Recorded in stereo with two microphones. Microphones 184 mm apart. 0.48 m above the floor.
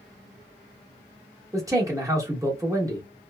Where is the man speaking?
15° right (ahead or behind), 1.0 m.